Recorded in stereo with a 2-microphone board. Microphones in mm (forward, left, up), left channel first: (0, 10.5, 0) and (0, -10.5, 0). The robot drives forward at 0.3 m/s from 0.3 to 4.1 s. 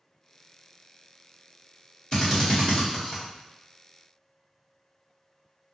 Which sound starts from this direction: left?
A drill, at 2.1 s.